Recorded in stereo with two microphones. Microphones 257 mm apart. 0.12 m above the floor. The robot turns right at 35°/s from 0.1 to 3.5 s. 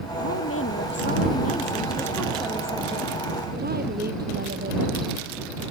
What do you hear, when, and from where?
0.2 s a woman speaking: 105° left; by 4.8 s 140° right